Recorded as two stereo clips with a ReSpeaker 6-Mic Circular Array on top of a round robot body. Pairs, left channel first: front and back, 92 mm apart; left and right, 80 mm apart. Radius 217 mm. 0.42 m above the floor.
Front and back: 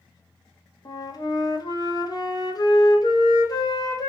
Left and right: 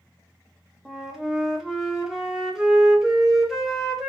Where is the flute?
5° right, 1.5 m.